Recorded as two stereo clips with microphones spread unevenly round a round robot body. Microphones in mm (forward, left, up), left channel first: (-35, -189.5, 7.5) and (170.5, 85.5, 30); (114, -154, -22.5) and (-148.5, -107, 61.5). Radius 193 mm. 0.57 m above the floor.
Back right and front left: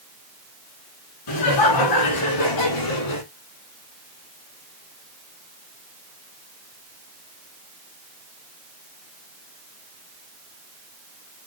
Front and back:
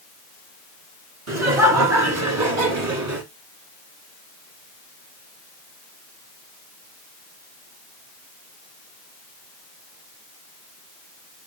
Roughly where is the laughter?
Behind.